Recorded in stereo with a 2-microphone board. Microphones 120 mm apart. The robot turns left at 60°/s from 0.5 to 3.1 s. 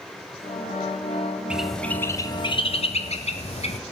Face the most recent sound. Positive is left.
turn(degrees=65)  # may be behind; listen again after turning